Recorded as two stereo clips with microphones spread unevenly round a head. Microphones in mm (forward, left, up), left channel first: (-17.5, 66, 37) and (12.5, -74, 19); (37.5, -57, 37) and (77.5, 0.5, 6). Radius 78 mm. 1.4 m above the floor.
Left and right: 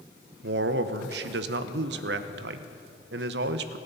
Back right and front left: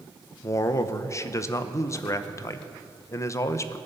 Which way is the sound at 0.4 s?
90° right.